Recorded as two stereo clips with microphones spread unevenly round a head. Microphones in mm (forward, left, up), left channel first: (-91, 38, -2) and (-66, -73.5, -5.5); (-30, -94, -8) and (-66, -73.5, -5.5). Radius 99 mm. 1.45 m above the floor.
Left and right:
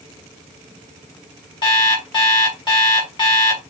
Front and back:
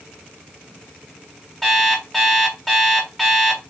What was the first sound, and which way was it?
An alarm clock, 55° left.